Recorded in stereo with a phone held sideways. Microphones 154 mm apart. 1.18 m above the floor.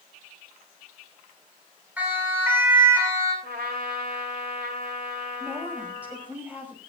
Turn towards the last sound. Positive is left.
turn(degrees=-10)  # may be behind; listen again after turning